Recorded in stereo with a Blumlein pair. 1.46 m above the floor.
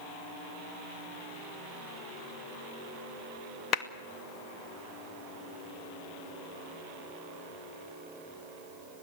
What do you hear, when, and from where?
3.7 s a clap: 30° left, 2 m